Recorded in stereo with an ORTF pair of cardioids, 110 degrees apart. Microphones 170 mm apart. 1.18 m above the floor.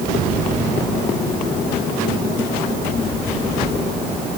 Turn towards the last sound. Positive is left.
No sound to turn to.